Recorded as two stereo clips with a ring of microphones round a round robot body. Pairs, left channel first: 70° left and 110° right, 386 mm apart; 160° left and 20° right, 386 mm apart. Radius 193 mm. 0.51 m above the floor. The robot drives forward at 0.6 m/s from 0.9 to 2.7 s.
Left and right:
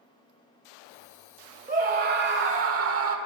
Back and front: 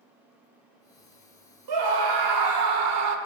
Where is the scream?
40° right, 1.7 m; by 3.2 s 65° right, 1.3 m.